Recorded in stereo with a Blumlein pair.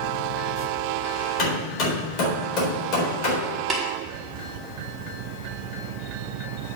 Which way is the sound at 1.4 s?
35° left.